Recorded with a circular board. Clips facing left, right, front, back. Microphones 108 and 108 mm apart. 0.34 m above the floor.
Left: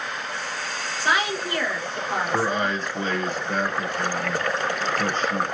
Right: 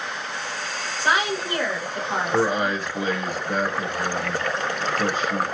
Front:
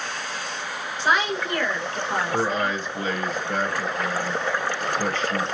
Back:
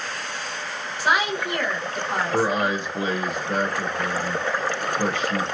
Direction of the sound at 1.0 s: 110° right.